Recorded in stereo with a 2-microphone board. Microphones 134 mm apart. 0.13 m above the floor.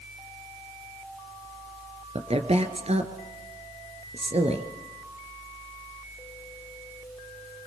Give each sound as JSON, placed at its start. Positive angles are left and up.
{"t": 2.1, "sound": "a woman speaking", "side_deg": -50, "distance_m": 1.9}